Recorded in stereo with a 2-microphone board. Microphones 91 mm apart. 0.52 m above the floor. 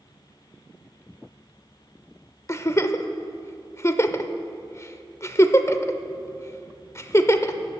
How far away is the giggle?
About 0.6 m.